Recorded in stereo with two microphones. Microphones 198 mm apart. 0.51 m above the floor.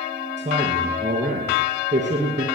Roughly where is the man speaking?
Right.